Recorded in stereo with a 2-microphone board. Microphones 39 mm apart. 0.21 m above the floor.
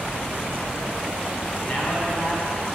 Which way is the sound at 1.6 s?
35° left (ahead or behind).